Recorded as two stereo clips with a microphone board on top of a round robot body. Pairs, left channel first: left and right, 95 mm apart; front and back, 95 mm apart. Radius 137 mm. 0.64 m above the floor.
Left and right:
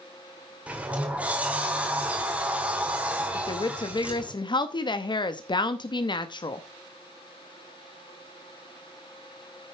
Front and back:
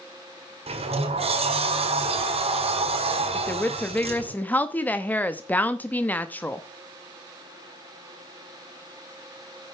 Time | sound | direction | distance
0.7 | a sliding door | 165° right | 1.7 m
3.3 | a woman speaking | 70° left | 0.9 m